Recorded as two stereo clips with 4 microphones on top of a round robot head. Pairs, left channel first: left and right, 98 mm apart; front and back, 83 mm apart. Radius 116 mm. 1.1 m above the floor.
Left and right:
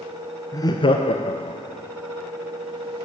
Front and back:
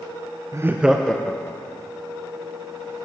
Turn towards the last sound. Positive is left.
turn(degrees=65)